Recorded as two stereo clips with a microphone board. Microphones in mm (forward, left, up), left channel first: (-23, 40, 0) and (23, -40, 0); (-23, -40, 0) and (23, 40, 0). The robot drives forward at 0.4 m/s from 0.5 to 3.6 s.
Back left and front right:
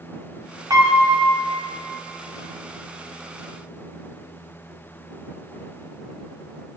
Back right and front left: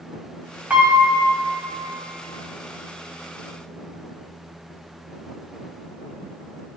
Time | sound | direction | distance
0.7 | a piano | 15° right | 1.5 m